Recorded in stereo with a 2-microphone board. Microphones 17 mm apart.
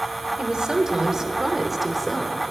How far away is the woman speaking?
About 1.5 m.